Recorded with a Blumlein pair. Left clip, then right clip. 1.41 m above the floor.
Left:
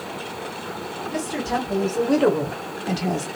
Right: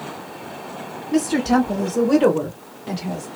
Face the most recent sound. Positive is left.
turn(degrees=40)